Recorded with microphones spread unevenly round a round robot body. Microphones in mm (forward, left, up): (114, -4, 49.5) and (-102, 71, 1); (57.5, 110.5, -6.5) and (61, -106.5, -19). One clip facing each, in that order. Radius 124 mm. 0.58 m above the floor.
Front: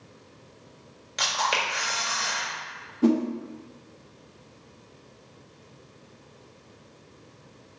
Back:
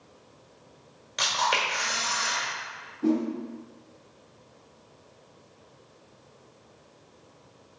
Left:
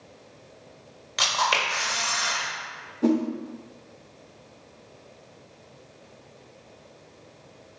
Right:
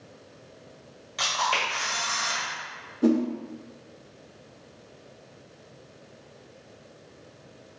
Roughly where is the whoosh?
Ahead.